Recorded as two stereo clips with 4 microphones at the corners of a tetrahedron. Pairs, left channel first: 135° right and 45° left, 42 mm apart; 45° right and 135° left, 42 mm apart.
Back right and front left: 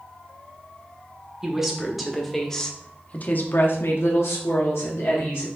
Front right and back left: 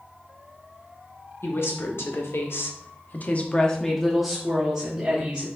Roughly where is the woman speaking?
Ahead right.